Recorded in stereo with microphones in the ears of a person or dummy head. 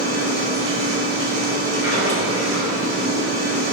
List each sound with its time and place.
0.0 s a machine running: 80° right, 2.5 m